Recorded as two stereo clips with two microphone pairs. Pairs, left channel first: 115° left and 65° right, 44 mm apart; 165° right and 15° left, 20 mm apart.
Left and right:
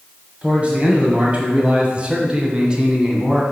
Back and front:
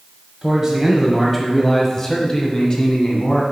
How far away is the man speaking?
About 1.5 m.